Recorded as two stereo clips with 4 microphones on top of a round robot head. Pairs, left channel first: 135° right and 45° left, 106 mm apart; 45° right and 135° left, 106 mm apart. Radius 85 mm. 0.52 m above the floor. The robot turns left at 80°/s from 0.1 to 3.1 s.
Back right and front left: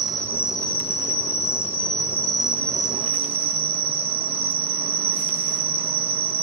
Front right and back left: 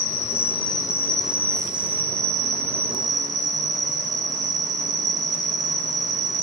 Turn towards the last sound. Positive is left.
turn(degrees=80)